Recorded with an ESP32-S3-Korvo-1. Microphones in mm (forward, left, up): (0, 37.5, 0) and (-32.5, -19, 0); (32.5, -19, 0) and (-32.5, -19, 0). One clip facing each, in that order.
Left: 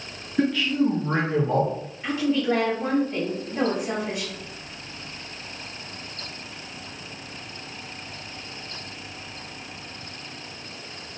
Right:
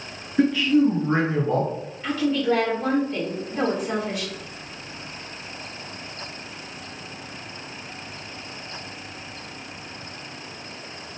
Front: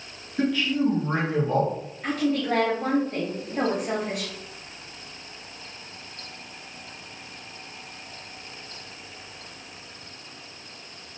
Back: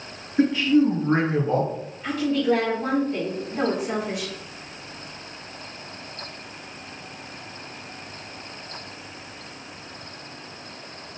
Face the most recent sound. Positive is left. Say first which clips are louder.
# right 1 dB, back 3 dB
turn(degrees=-10)